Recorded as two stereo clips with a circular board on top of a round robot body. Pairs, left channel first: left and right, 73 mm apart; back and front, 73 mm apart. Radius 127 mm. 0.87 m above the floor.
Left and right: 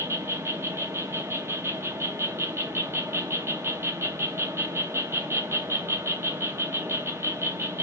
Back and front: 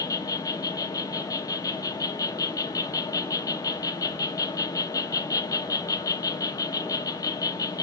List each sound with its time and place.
0.0 s an insect: 145° right, 0.9 m